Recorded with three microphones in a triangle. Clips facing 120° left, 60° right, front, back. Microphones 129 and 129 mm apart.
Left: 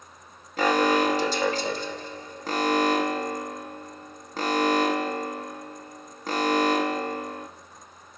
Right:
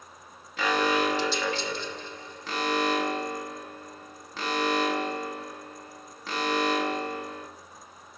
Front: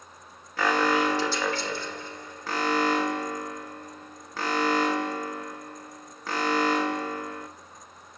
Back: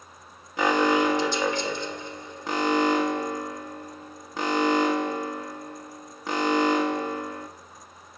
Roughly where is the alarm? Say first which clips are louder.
Left 4 dB, back 2 dB; behind left.